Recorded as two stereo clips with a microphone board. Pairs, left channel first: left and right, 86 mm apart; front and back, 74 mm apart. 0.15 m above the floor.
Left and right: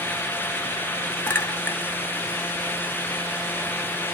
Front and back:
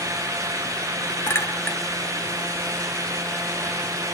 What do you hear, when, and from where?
1.3 s a clink: 35° left, 0.9 m